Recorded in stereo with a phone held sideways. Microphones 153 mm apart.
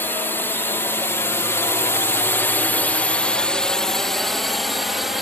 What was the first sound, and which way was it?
A drone, 15° left (ahead or behind).